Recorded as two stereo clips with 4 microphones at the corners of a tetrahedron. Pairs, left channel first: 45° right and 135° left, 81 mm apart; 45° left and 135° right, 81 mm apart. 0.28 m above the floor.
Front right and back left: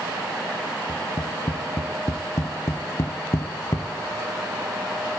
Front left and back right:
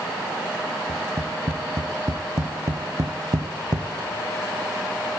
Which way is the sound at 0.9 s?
90° right.